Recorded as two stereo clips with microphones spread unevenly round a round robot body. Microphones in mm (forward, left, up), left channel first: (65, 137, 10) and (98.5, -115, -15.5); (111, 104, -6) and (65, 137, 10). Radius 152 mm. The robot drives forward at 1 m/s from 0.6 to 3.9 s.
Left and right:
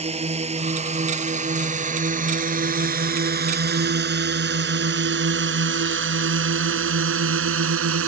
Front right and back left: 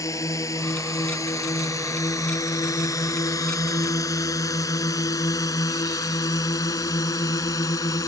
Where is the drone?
15° right; by 8.1 s 55° right.